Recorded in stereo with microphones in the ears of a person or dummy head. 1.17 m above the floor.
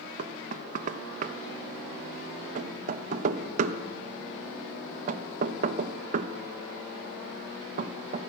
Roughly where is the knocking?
Right.